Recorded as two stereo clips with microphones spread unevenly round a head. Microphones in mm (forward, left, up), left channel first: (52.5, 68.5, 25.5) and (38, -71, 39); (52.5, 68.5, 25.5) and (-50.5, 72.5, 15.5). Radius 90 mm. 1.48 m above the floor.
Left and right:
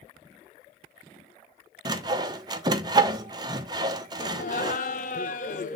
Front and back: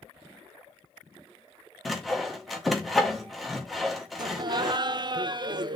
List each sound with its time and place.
1.9 s sawing: 85° right, 0.5 m
4.2 s laughter: 135° left, 0.7 m